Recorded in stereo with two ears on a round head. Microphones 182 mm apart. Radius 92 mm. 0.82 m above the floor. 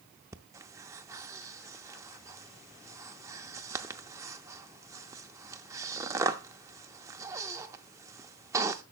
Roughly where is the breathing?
Centre.